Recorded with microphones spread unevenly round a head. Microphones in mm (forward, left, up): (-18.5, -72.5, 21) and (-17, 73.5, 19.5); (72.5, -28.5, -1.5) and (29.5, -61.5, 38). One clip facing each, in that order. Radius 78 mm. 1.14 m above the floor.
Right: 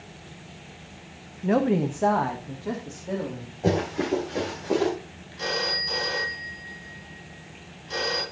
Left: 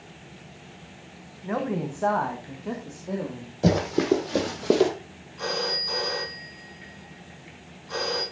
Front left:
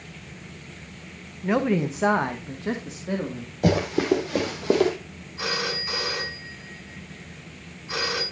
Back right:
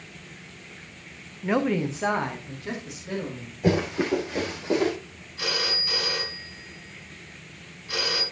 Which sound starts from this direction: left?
Running footsteps, at 3.6 s.